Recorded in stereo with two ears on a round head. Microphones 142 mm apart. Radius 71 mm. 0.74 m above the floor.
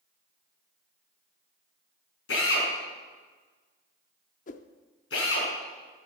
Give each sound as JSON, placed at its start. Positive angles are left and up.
{"t": 2.3, "sound": "a drill", "side_deg": 85, "distance_m": 4.5}
{"t": 4.5, "sound": "a whoosh", "side_deg": 50, "distance_m": 0.6}